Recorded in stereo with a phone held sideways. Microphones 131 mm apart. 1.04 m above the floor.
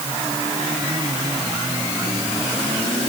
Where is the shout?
I don't hear a shout.